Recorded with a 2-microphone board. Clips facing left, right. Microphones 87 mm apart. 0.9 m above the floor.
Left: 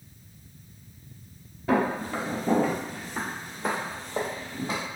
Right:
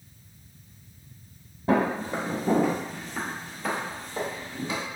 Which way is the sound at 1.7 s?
30° right (ahead or behind).